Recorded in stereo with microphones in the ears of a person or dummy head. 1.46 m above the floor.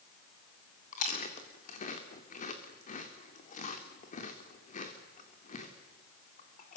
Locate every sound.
0.9 s chewing: 35° left (ahead or behind), 3 m